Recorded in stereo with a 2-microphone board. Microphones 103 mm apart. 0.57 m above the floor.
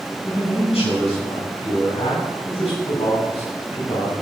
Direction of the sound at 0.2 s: 75° left (ahead or behind).